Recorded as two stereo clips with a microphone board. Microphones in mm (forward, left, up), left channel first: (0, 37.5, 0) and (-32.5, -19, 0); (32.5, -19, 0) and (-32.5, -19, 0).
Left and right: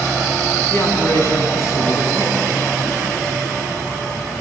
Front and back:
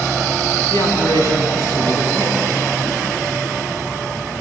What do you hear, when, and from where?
0.7 s a man speaking: 10° left, 5.5 m; by 2.6 s 30° left, 6.5 m